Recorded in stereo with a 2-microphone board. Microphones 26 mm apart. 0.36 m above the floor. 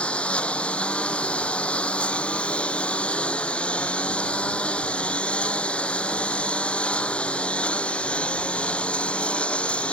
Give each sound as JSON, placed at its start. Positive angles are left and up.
{"t": 0.0, "sound": "a lawn mower", "side_deg": 45}